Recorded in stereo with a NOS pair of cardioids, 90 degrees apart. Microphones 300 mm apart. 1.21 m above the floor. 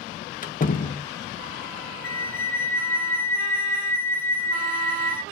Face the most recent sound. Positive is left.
turn(degrees=5)